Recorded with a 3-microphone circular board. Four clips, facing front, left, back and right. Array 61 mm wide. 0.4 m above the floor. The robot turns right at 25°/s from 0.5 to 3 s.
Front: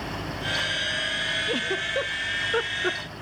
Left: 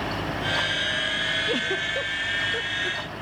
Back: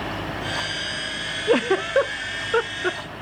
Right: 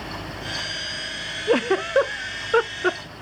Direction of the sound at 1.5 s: 135° right.